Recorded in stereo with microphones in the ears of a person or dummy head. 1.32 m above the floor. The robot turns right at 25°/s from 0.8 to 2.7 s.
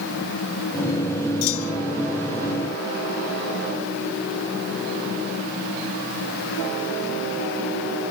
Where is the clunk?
80° left.